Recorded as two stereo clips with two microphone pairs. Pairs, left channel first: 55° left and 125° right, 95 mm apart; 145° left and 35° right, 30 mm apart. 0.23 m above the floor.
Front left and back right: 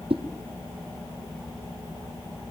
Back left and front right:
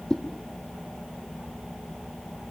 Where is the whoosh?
145° right, 1.6 m.